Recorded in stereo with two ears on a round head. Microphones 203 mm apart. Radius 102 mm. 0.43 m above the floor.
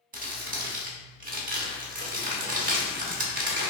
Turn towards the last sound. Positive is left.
turn(degrees=-35)  # may be behind; listen again after turning